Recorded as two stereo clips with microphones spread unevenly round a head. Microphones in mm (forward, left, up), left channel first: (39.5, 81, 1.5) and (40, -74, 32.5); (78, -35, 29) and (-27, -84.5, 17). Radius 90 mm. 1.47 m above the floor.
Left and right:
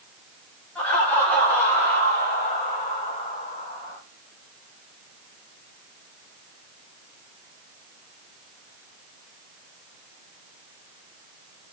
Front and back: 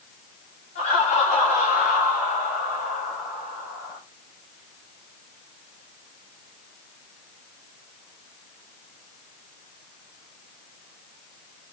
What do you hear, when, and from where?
0.8 s laughter: 10° left, 3.5 m; by 4.0 s 25° left, 4.5 m